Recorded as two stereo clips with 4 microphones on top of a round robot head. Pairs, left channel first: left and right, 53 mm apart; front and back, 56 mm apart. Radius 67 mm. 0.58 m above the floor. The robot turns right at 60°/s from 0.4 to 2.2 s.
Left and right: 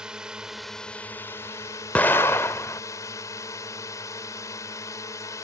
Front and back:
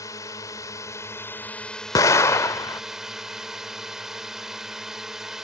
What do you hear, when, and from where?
0.0 s a drone: 15° right; by 5.4 s 95° left
1.9 s an explosion: 20° left; by 2.8 s 35° left